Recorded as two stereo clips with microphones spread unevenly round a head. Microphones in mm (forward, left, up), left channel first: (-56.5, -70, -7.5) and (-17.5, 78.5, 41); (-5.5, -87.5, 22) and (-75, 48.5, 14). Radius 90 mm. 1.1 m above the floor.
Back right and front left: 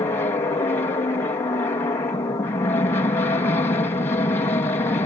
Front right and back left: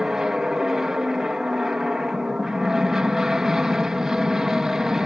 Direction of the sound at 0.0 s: 160° right.